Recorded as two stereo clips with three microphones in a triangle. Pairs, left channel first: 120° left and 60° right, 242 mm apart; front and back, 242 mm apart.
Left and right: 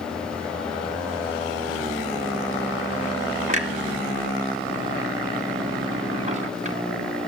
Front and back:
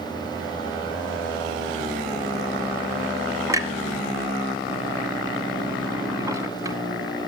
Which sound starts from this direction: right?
A clunk, at 3.5 s.